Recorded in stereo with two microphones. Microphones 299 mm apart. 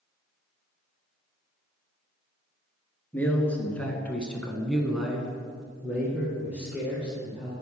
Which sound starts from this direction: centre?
A man speaking, at 3.1 s.